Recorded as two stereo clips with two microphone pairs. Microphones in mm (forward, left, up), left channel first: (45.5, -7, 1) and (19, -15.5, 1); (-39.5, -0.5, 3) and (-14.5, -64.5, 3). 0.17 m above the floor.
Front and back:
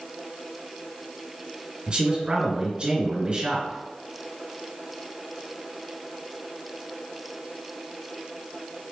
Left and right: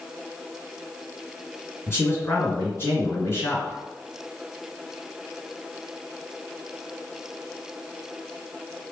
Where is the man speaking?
155° left, 2.0 m.